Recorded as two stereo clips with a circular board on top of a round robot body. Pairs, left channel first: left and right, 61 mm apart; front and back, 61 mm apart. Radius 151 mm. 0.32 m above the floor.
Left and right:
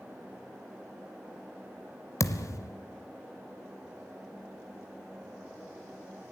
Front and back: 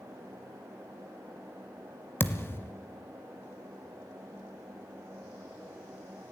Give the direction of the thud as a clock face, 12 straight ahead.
10 o'clock.